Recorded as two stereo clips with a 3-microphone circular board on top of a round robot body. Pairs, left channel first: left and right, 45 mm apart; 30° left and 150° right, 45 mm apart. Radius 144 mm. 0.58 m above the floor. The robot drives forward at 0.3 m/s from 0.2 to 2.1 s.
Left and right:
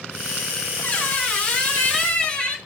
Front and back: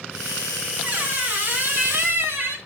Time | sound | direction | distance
0.8 | a squeak | 150° left | 1.0 m